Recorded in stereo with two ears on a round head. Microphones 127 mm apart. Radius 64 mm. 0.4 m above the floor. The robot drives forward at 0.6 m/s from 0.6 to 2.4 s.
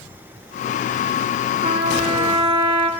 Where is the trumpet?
35° right (ahead or behind), 3 m; by 2.9 s 30° right (ahead or behind), 3 m.